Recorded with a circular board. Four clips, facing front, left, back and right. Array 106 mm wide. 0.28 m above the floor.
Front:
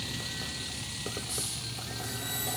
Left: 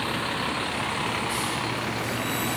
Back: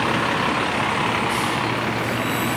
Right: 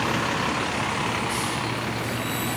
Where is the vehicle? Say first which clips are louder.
Right 4 dB, back 21 dB; 165° right; by 2.6 s straight behind.